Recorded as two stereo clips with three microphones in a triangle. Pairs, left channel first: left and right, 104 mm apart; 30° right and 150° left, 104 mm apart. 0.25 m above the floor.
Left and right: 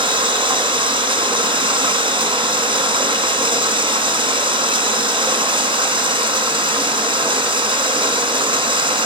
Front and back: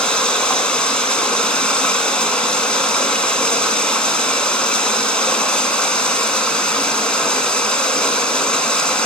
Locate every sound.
0.0 s running water: 110° right, 2.5 m